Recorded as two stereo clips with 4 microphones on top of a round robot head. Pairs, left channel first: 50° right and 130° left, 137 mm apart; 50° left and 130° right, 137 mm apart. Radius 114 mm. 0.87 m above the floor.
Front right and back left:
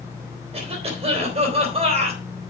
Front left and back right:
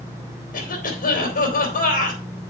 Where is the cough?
80° left, 3 m.